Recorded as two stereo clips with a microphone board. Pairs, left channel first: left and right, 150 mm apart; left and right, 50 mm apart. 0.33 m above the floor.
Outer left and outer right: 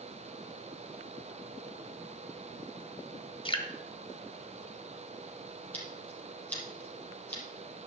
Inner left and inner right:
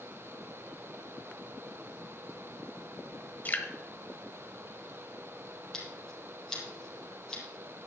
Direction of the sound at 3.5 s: 35° left (ahead or behind).